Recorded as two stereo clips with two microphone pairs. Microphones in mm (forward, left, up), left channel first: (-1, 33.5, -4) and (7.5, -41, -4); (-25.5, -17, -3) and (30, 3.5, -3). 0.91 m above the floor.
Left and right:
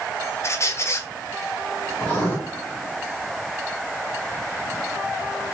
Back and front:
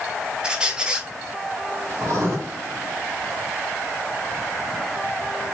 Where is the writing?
35° left, 1.7 m.